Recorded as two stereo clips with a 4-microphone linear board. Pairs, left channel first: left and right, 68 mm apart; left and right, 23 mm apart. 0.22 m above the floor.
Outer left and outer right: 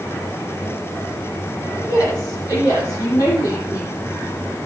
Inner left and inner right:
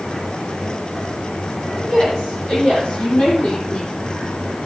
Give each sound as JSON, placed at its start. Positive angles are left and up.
{"t": 1.8, "sound": "a woman speaking", "side_deg": 80, "distance_m": 9.0}